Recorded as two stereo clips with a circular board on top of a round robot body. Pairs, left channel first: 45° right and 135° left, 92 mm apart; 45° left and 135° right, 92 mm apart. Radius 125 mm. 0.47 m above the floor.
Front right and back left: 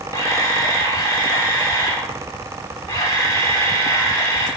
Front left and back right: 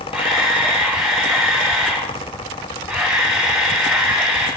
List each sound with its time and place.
0.1 s a camera shutter: 55° right, 5 m